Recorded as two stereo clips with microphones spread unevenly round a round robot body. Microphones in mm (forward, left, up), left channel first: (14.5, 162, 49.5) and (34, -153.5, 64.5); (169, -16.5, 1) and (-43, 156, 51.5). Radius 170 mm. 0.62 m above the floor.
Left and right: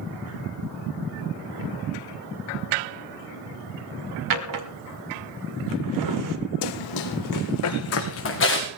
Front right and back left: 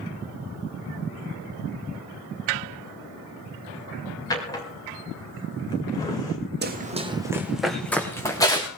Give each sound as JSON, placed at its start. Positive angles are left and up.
{"t": 4.3, "sound": "a drawer", "azimuth_deg": -115, "distance_m": 1.5}
{"t": 6.6, "sound": "running footsteps", "azimuth_deg": 95, "distance_m": 1.6}